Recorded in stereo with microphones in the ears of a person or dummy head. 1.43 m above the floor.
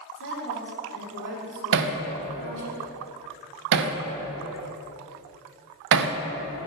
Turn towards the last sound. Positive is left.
turn(degrees=-65)  # may be behind; listen again after turning